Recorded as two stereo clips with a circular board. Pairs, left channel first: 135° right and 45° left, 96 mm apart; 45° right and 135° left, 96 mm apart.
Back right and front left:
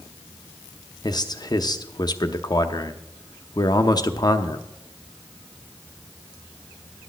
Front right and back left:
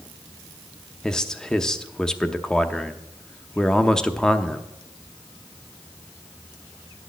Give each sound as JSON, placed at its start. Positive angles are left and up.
{"t": 1.0, "sound": "a man speaking", "azimuth_deg": -125, "distance_m": 0.7}